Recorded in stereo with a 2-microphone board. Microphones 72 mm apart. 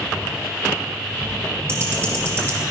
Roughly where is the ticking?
Right.